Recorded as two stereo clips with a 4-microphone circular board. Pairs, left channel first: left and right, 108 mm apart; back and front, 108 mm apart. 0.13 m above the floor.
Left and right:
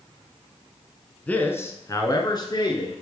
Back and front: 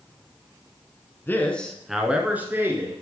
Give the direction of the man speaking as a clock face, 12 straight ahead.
7 o'clock.